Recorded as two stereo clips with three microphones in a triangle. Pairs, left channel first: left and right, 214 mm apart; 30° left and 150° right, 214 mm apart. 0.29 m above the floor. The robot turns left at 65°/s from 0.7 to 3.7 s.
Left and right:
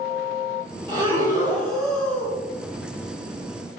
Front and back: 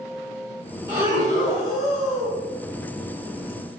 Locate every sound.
0.9 s breathing: 120° right, 1.2 m; by 2.4 s 145° left, 1.2 m